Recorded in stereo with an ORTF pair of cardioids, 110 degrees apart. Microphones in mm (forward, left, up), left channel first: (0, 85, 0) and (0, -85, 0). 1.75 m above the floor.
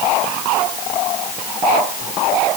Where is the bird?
I don't hear a bird.